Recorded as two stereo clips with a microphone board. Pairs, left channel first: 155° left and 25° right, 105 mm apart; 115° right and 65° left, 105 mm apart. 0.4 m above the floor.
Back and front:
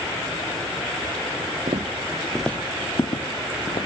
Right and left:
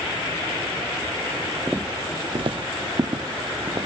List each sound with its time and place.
1.7 s footsteps: 10° right, 0.9 m; by 3.9 s 125° left, 2 m